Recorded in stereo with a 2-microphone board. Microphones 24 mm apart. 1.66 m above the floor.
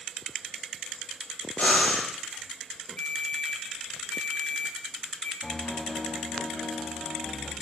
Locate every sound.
1.6 s breathing: 80° left, 8 m
3.0 s a ringtone: 75° left (ahead or behind), 5 m
5.4 s a piano: 65° left (ahead or behind), 8 m